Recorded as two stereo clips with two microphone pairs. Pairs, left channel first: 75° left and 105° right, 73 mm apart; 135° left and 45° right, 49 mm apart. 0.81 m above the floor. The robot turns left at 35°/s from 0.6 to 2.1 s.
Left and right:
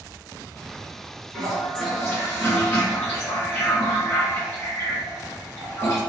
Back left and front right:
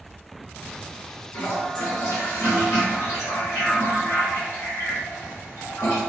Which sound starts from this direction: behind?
A toilet flushing, at 1.3 s.